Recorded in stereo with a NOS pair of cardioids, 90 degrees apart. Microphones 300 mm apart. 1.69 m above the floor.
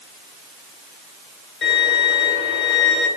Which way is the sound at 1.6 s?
40° left.